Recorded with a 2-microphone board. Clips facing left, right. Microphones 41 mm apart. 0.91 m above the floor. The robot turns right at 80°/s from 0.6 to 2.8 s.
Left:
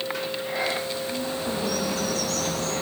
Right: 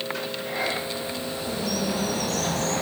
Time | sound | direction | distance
1.1 | a bird | 120° left | 7.5 m